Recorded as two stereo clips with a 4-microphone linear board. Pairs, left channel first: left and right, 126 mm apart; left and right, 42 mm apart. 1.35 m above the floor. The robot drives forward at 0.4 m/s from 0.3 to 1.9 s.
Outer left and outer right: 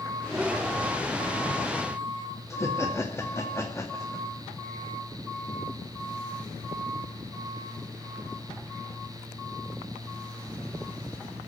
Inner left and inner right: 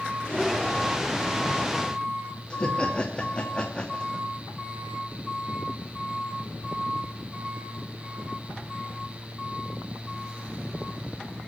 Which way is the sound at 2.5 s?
20° left (ahead or behind).